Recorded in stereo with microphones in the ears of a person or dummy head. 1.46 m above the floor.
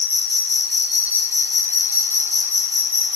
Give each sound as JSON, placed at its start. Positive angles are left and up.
{"t": 0.0, "sound": "an insect", "side_deg": -20, "distance_m": 1.7}